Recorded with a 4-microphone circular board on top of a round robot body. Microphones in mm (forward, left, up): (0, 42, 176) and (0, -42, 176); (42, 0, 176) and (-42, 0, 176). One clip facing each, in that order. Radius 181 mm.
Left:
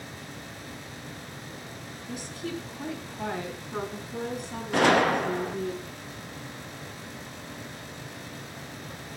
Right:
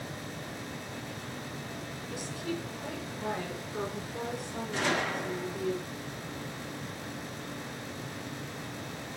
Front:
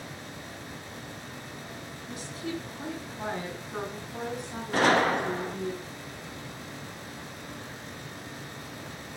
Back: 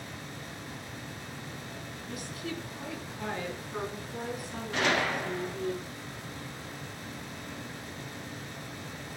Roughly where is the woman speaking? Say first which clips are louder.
Left 1 dB, front 3 dB; ahead left.